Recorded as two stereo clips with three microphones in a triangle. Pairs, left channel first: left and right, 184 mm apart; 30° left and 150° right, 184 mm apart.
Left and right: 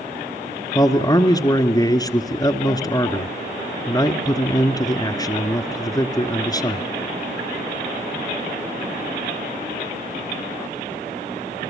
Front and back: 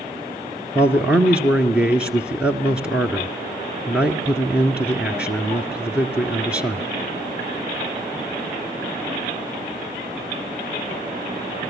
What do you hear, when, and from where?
0.8 s a man speaking: 135° left, 1.2 m